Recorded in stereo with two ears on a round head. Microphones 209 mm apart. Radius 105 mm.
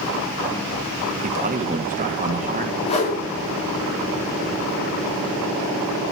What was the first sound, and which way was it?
A man speaking, 35° right (ahead or behind).